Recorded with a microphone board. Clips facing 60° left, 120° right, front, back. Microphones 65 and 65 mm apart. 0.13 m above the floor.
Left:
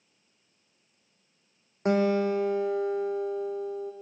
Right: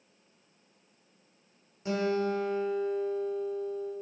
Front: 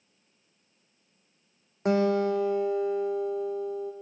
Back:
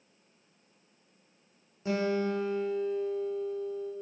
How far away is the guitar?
About 1.8 m.